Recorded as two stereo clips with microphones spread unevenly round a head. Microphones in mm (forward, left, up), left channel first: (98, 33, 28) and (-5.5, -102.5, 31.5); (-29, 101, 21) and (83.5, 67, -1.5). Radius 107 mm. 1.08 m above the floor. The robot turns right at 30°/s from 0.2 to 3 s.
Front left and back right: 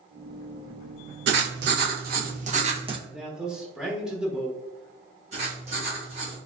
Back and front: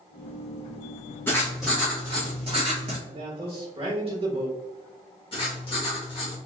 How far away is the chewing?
No chewing in this recording.